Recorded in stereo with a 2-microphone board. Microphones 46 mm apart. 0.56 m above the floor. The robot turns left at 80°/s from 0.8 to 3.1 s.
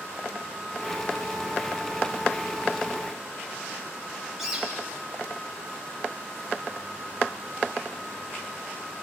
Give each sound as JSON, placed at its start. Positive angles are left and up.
{"t": 4.4, "sound": "a bird", "side_deg": -10, "distance_m": 8.5}